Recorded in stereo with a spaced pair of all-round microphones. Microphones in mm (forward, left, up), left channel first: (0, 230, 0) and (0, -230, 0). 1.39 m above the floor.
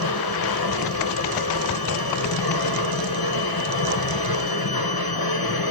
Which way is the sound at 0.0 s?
50° left (ahead or behind).